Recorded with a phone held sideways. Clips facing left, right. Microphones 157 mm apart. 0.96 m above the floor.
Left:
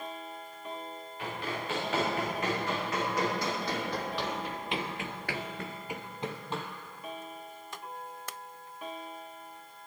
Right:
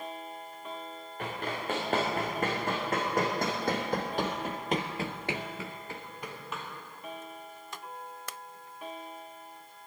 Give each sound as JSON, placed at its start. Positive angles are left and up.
{"t": 1.2, "sound": "running footsteps", "side_deg": -50, "distance_m": 6.0}